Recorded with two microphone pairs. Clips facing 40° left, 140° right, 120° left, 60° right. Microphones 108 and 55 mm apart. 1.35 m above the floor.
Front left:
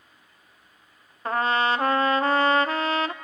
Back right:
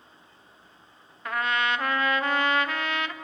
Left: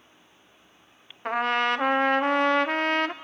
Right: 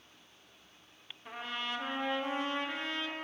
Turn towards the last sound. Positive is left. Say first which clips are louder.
# front left 4 dB, left 15 dB
turn(degrees=95)